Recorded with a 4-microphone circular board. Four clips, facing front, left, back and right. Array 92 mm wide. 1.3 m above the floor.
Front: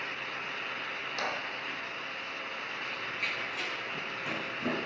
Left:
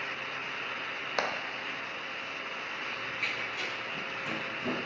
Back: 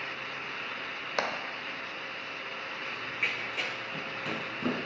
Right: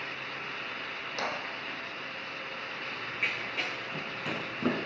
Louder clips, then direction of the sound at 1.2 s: Left 3 dB, back 4 dB; 135° left.